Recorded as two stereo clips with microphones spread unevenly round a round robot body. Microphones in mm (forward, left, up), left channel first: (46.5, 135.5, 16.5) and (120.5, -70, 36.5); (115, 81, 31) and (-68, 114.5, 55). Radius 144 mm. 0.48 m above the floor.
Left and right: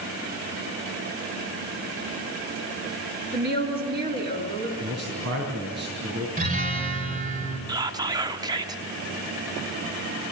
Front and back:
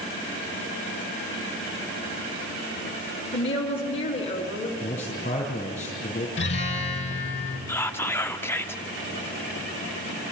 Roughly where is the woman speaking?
Ahead right.